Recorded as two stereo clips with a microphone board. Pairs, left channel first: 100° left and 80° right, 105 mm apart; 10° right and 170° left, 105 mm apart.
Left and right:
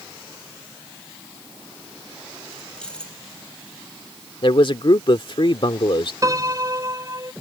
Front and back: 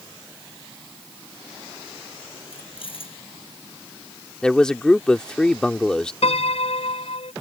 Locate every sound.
2.4 s keys jangling: 20° left
4.4 s a man speaking: 70° left
6.2 s a piano: 25° right